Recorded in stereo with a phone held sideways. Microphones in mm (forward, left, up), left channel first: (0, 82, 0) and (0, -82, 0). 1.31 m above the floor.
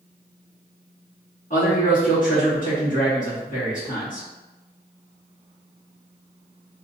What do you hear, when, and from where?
1.5 s a man speaking: 55° left (ahead or behind), 1.9 m